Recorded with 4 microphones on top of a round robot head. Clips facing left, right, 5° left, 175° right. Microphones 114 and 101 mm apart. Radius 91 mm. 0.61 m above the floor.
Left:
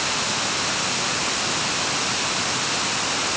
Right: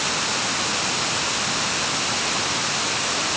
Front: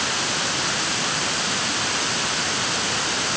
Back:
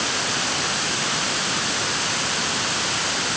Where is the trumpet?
No trumpet in this recording.